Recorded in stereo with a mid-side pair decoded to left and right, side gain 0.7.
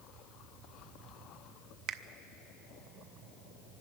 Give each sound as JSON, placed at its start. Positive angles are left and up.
{"t": 1.9, "sound": "a finger snap", "azimuth_deg": -50, "distance_m": 0.5}